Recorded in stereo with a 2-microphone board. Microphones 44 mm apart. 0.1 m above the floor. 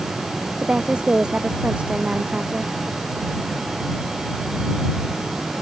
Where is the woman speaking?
25° right (ahead or behind).